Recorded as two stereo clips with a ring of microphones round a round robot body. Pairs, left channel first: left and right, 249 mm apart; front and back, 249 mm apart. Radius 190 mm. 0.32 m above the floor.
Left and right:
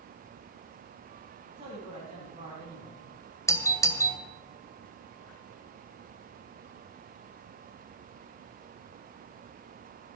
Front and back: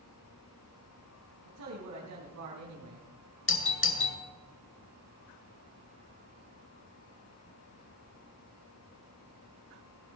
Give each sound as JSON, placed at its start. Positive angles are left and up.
{"t": 1.4, "sound": "a man speaking", "azimuth_deg": -155, "distance_m": 3.0}
{"t": 3.5, "sound": "a doorbell", "azimuth_deg": 15, "distance_m": 2.5}